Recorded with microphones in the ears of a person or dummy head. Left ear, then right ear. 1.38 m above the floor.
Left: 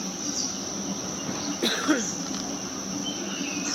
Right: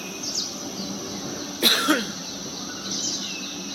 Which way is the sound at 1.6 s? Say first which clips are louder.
Right 6 dB; 30° right (ahead or behind).